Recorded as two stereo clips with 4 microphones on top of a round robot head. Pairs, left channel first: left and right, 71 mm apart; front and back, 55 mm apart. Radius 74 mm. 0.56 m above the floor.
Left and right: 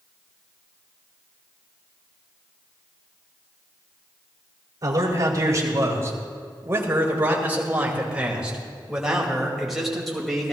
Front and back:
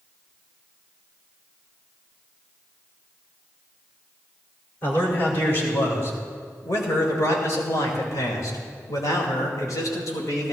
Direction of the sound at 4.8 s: 50° right.